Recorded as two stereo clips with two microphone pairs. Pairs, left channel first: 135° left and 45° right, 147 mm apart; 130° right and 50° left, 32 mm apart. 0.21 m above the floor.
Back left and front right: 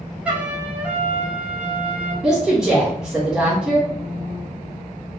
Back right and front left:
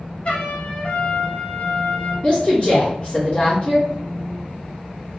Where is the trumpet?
120° right, 0.7 m.